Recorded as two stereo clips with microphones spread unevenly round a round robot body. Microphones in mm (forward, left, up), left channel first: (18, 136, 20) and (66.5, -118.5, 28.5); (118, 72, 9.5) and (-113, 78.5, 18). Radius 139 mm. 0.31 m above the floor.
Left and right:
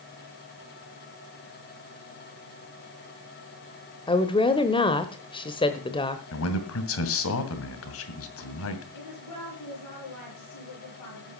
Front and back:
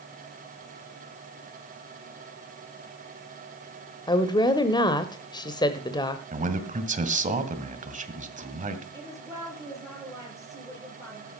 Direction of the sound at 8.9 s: 105° left.